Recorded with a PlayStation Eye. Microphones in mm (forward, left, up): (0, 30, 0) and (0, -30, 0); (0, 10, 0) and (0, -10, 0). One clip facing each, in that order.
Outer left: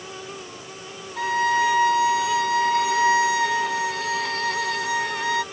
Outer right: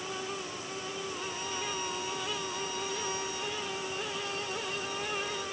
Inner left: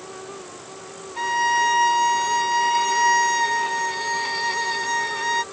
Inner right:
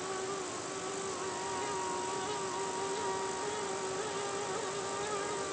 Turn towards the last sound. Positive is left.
turn(degrees=80)